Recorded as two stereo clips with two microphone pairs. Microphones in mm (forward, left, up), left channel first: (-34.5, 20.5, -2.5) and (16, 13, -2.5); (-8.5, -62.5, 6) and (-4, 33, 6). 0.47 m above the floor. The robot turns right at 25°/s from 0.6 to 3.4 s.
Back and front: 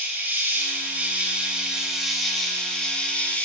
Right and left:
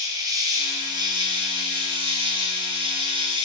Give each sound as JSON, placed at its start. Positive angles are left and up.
{"t": 0.0, "sound": "an insect", "azimuth_deg": 40, "distance_m": 1.3}